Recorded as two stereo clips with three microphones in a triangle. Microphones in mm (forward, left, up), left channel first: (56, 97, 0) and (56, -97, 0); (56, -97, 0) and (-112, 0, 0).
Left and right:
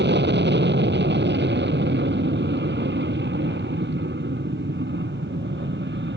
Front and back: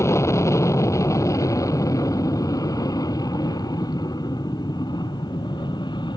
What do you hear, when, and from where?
0.0 s an aircraft: 105° right; by 6.2 s 95° right